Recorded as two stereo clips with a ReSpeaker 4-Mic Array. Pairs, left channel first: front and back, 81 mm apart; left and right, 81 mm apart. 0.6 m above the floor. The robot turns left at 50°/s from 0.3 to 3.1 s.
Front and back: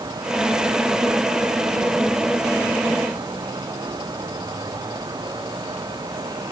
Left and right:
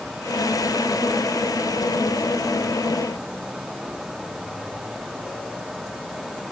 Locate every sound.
Only background noise.